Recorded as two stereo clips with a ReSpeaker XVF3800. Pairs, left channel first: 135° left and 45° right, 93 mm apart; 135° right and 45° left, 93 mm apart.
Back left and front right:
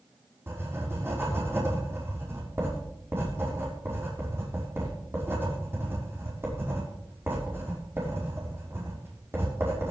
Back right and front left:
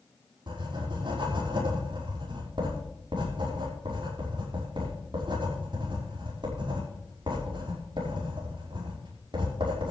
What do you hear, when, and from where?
0.5 s writing: 20° left, 5.5 m